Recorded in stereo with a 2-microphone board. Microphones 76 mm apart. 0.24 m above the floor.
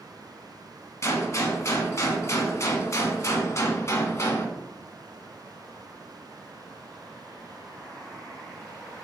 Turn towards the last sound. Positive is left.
turn(degrees=45)  # may be behind; listen again after turning